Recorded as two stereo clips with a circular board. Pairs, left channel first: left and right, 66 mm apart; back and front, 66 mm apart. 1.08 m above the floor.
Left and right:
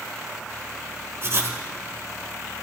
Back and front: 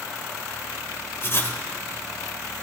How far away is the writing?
About 1.5 m.